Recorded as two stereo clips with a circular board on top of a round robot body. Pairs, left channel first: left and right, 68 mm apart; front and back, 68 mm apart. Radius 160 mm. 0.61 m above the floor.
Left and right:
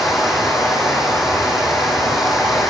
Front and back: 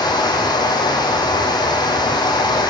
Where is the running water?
5° right, 3.5 m.